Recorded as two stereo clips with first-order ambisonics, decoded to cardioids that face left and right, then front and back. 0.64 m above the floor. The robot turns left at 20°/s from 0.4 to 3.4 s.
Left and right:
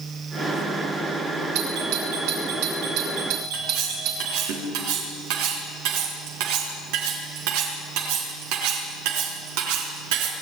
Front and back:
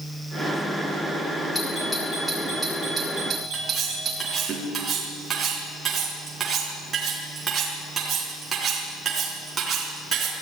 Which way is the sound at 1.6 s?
80° right.